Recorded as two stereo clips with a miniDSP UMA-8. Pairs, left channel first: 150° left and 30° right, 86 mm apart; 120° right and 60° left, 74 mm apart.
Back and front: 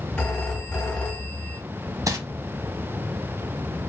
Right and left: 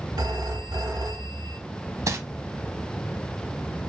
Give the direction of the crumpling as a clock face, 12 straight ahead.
11 o'clock.